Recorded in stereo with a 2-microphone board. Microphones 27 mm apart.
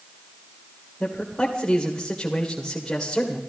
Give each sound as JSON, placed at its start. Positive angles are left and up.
{"t": 1.0, "sound": "a man speaking", "side_deg": 20, "distance_m": 1.9}